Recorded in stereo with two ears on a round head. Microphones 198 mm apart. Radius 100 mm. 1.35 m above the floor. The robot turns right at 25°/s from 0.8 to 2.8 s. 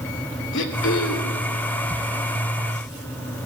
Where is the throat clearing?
60° left (ahead or behind), 2.5 m; by 1.4 s 70° left (ahead or behind), 2.5 m.